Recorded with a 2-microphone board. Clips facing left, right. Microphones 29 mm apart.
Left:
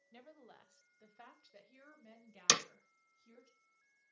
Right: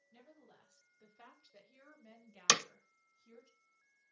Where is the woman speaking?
55° left (ahead or behind), 1.3 m; by 3.5 s 5° right (ahead or behind), 1.5 m.